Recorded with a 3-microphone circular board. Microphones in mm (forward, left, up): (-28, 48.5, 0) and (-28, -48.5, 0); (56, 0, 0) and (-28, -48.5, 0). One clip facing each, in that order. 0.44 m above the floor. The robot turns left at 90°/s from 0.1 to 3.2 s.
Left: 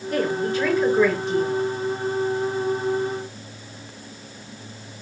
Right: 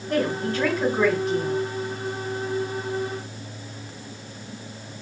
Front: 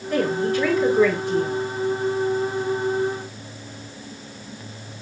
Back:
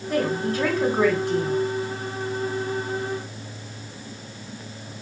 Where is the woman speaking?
70° right, 3 m; by 1.6 s 155° left, 3 m.